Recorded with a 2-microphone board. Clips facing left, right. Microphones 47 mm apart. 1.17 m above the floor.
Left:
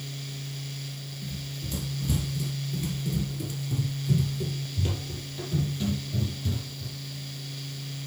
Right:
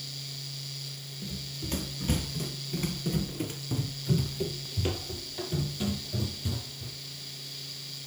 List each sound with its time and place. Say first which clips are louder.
1.2 s running footsteps: even; 50° right (ahead or behind), 2.0 m; by 7.0 s 10° right (ahead or behind), 3 m